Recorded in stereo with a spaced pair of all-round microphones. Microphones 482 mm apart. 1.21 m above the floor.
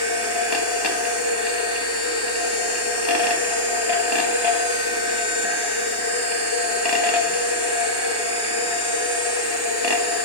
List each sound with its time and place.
0.0 s a machine running: 55° left (ahead or behind), 1.7 m